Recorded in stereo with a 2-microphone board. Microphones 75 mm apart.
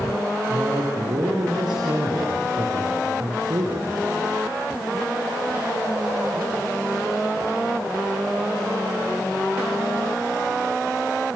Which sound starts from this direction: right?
A man speaking, at 0.5 s.